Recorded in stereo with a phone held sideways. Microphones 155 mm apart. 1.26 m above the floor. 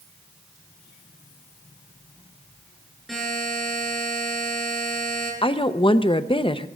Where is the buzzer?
Centre (ahead or behind), 7.5 m.